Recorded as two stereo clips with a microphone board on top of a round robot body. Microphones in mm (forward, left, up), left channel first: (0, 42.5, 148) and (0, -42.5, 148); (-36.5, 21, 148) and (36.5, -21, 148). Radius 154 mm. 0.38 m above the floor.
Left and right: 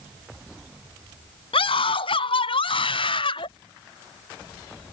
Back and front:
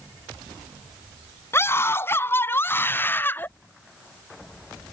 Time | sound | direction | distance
1.5 | a scream | 90° left | ?